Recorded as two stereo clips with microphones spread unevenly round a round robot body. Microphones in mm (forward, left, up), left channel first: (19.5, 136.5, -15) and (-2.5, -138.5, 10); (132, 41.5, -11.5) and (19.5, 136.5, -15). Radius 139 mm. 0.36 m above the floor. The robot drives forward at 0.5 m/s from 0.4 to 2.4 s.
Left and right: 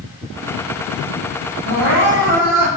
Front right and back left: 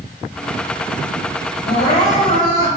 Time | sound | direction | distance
1.6 | crying | 70° right | 6.5 m